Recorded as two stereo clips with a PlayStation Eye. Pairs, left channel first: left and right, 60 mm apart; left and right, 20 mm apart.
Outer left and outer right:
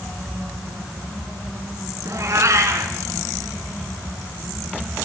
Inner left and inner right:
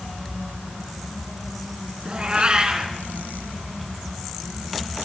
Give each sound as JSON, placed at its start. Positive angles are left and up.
{"t": 2.0, "sound": "a cat meowing", "side_deg": -55, "distance_m": 4.0}